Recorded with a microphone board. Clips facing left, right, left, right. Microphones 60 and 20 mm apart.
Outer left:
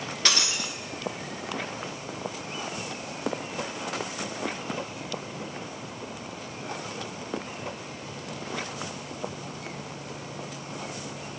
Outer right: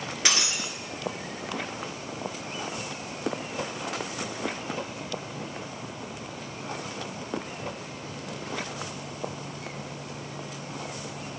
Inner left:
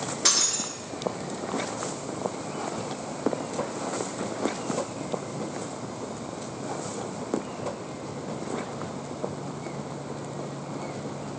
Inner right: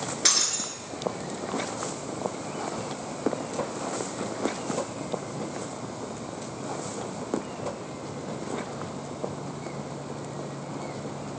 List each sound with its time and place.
0.2 s breaking glass: 15° right (ahead or behind), 1.8 m